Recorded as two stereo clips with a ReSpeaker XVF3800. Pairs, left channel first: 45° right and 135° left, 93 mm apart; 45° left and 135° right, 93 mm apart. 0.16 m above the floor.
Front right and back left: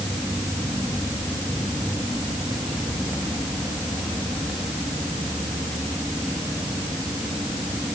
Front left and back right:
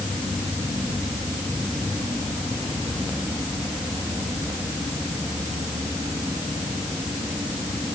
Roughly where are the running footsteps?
I don't hear running footsteps.